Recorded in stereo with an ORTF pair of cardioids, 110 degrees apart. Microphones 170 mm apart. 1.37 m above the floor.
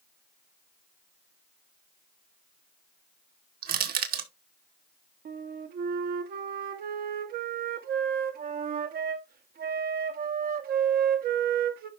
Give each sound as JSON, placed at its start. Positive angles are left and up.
{"t": 3.6, "sound": "crushing", "azimuth_deg": -60, "distance_m": 2.0}
{"t": 5.2, "sound": "a flute", "azimuth_deg": -60, "distance_m": 1.6}